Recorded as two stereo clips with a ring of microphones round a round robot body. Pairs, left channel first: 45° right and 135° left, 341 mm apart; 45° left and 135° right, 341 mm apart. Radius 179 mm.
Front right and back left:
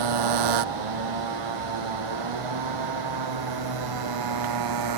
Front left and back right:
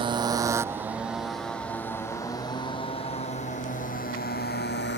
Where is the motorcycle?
150° left; by 5.0 s 105° left.